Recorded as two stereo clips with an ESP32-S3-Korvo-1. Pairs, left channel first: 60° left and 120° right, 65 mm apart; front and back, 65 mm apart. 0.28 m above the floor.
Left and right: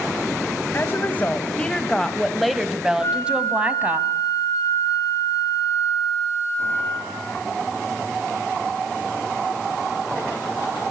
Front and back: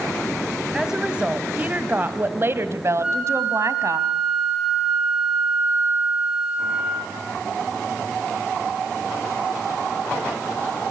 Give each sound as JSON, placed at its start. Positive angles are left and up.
{"t": 0.7, "sound": "a woman speaking", "azimuth_deg": 100, "distance_m": 1.7}
{"t": 3.0, "sound": "a flute", "azimuth_deg": 105, "distance_m": 5.0}